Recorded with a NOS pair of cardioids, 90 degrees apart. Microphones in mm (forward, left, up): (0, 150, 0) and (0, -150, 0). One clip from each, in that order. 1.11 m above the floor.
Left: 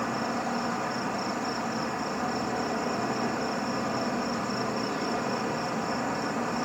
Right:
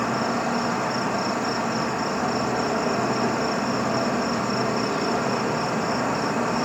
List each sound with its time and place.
0.0 s an insect: 30° right